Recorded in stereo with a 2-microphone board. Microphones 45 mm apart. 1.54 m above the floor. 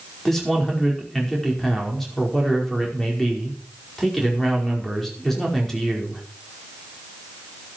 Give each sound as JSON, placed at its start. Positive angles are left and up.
{"t": 0.2, "sound": "a man speaking", "side_deg": 5, "distance_m": 5.0}